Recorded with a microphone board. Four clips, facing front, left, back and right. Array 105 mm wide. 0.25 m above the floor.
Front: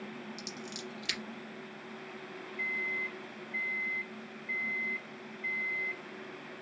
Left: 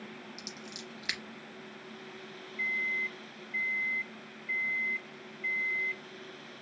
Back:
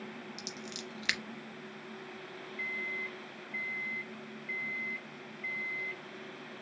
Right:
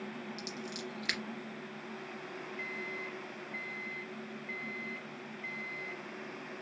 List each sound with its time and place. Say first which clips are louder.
0.4 s scissors: right 4 dB, front 1 dB; straight behind, 0.8 m
2.6 s a microwave: left 9 dB, front 3 dB; 95° left, 0.8 m